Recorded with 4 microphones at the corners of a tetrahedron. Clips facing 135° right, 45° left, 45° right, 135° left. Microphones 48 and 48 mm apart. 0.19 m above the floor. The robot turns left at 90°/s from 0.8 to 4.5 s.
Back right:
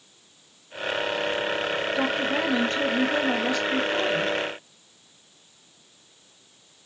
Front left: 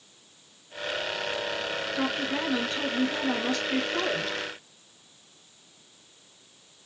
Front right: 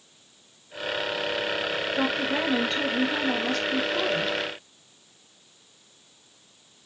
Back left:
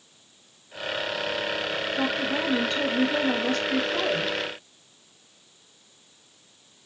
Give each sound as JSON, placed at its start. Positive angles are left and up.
{"t": 1.9, "sound": "a woman speaking", "azimuth_deg": -60, "distance_m": 3.0}